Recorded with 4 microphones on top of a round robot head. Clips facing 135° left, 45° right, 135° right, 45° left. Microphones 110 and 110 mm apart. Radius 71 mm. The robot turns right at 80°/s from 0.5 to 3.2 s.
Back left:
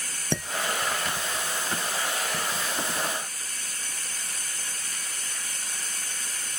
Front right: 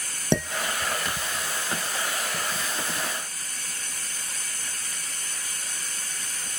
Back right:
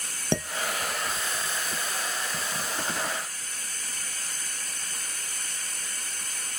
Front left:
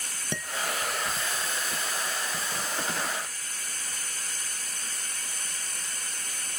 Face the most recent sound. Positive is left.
turn(degrees=145)